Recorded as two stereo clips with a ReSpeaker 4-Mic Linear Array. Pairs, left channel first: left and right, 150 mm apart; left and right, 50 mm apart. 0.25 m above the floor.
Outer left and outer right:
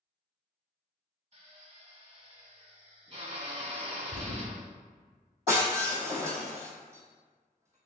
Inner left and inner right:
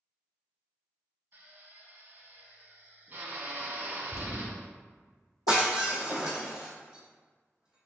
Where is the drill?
45° right (ahead or behind), 0.8 m.